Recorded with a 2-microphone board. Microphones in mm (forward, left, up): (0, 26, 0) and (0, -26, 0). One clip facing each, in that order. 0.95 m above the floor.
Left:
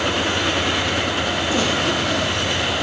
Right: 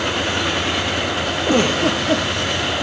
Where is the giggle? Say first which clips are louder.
Right 6 dB; 55° right (ahead or behind), 5 m.